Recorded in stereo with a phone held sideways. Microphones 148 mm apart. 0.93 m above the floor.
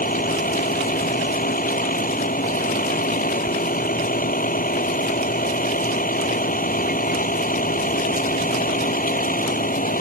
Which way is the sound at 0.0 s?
70° left (ahead or behind).